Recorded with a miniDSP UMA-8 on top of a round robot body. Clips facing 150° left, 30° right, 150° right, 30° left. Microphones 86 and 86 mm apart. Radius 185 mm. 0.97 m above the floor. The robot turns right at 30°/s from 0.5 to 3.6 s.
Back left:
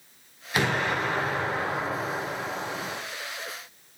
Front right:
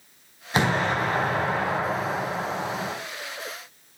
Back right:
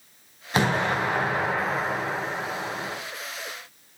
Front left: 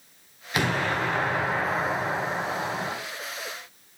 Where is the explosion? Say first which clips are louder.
Front right 3 dB, back right 2 dB; 90° right, 3.5 m; by 3.0 s 20° right, 3.5 m.